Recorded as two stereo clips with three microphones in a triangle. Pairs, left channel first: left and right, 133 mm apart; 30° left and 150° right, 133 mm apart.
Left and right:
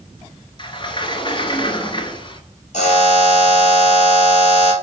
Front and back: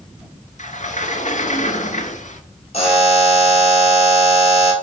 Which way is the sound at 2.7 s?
70° left.